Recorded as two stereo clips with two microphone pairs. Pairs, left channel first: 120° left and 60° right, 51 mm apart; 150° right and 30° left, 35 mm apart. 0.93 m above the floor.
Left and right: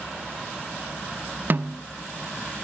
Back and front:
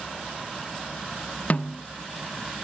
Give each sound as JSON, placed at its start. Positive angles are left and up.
{"t": 1.5, "sound": "a snare drum", "azimuth_deg": -110, "distance_m": 0.6}